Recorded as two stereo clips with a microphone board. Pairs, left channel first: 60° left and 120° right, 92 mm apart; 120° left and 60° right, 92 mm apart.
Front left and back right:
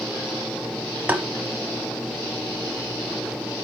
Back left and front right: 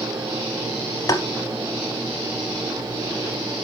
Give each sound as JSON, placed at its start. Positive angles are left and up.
{"t": 1.1, "sound": "tapping", "azimuth_deg": 170, "distance_m": 0.8}